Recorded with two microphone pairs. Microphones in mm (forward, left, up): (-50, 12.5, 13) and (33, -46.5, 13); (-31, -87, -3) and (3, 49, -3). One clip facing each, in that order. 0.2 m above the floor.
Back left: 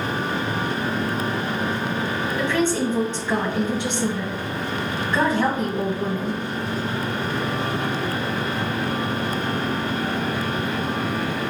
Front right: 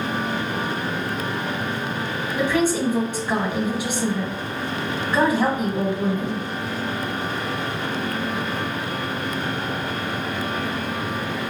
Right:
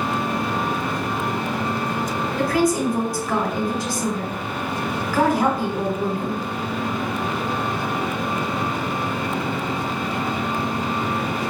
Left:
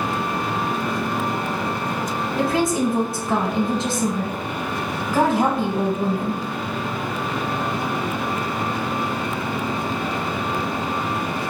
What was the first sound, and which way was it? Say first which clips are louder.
A woman speaking: front right 2 dB, even; 30° left.